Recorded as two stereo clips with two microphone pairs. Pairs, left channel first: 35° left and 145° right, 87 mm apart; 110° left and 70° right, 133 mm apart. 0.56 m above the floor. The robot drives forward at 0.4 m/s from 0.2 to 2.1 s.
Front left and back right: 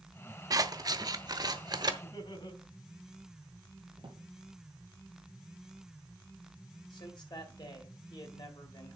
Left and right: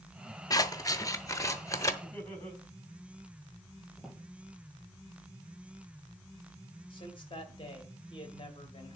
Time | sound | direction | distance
0.5 | scissors | 170° left | 0.5 m
2.0 | laughter | 25° left | 4.5 m
4.0 | a drawer | 160° right | 3 m
6.9 | a man speaking | 60° left | 2.0 m